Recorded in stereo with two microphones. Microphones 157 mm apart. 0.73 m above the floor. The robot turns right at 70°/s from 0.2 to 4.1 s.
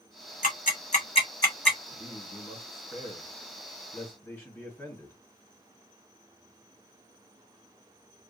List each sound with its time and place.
0.4 s ticking: 55° left (ahead or behind), 1.0 m; by 1.8 s 5° left (ahead or behind), 1.0 m
1.9 s a man speaking: 15° left, 1.8 m; by 5.2 s 165° left, 1.8 m